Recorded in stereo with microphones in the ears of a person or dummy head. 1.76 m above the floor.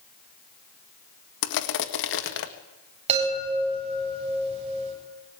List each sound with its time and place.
1.4 s crushing: 65° left (ahead or behind), 1.8 m
3.1 s a chime: 40° right (ahead or behind), 9.5 m